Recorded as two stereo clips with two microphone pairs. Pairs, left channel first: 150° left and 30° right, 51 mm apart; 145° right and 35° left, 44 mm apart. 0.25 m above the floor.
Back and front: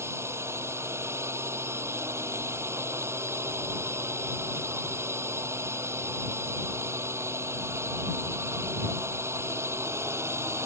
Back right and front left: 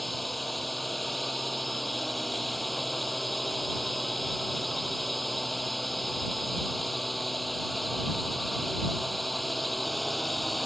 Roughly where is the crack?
No crack in this recording.